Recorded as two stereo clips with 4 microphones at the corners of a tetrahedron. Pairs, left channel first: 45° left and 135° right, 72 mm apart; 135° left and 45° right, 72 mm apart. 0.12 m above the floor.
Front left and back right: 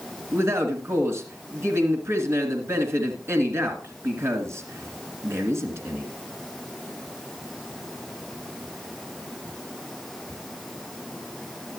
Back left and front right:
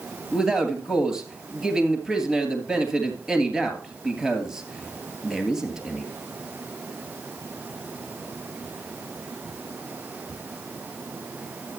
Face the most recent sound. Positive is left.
turn(degrees=-125)